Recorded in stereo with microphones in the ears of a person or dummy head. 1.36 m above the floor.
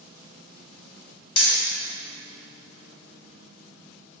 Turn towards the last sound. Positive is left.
turn(degrees=35)  # may be behind; listen again after turning